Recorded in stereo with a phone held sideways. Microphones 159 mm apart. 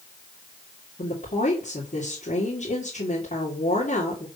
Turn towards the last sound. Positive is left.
turn(degrees=50)  # may be behind; listen again after turning